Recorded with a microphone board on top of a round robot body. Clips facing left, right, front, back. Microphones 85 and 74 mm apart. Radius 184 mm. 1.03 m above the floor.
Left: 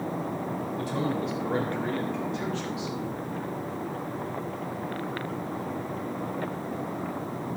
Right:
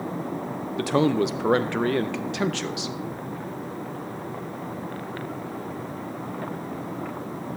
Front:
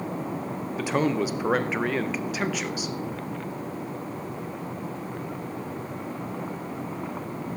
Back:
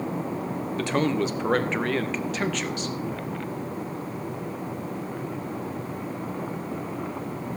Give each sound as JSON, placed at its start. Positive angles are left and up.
{"t": 0.8, "sound": "a man speaking", "azimuth_deg": -80, "distance_m": 0.6}